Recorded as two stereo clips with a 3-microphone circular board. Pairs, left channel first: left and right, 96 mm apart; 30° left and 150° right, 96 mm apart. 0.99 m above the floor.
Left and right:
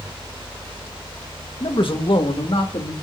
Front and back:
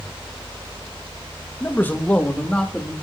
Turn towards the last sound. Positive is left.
turn(degrees=110)